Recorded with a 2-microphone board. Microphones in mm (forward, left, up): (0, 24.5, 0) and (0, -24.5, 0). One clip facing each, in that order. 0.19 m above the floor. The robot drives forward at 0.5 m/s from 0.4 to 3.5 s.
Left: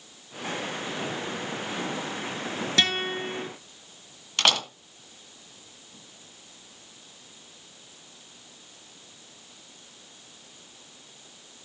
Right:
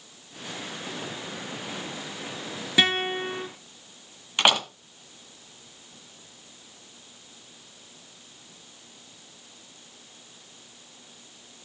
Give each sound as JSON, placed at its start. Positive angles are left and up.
{"t": 2.8, "sound": "a guitar", "side_deg": -15, "distance_m": 1.3}
{"t": 4.4, "sound": "a door slam", "side_deg": -15, "distance_m": 1.4}